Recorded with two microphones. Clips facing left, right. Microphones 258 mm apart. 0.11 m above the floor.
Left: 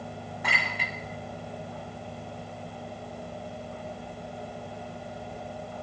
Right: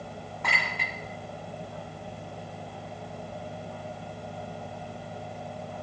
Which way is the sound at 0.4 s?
10° left (ahead or behind).